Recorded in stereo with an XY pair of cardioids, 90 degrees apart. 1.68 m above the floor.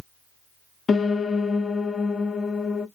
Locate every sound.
0.9 s a piano: 45° left, 0.6 m